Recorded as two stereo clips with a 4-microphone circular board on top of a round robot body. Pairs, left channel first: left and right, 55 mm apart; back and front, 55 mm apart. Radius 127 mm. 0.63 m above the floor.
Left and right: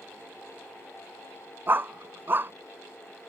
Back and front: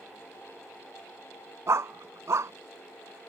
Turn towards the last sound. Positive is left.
turn(degrees=-35)